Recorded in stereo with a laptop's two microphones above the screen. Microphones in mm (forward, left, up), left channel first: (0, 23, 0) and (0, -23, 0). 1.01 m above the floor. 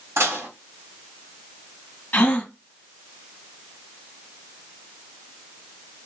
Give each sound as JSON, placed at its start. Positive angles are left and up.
{"t": 0.2, "sound": "dishes clattering", "side_deg": -85, "distance_m": 1.5}
{"t": 2.1, "sound": "a gasp", "side_deg": 35, "distance_m": 1.2}